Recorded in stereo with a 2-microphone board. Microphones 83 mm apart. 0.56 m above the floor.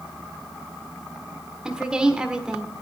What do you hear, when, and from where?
1.6 s a woman speaking: 10° right (ahead or behind), 1.3 m